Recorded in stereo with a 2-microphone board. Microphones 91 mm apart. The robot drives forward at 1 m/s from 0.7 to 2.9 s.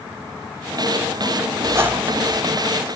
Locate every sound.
1.6 s a squeak: 35° right (ahead or behind), 0.5 m; by 2.4 s 15° right (ahead or behind), 1.2 m